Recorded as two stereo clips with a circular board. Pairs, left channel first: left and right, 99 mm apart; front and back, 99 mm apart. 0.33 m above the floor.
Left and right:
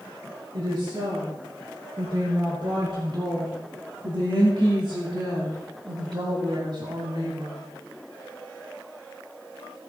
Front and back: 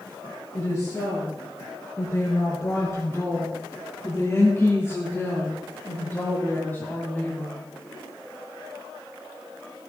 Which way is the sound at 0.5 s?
55° right.